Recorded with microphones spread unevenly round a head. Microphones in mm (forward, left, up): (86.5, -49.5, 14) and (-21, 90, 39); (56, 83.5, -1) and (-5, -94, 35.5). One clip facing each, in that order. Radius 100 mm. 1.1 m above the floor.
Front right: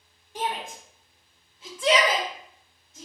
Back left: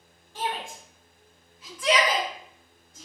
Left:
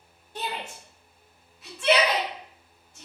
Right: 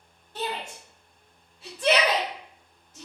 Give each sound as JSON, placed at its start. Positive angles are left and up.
{"t": 0.3, "sound": "a shout", "azimuth_deg": 10, "distance_m": 1.0}